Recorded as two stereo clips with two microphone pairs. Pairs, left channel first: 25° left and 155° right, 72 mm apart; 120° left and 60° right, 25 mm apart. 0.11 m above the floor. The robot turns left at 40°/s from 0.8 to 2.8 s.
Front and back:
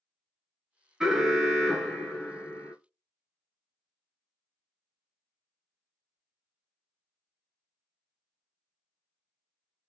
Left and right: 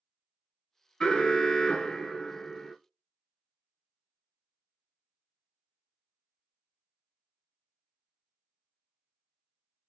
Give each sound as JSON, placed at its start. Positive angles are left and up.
{"t": 1.0, "sound": "an alarm", "azimuth_deg": 135, "distance_m": 1.2}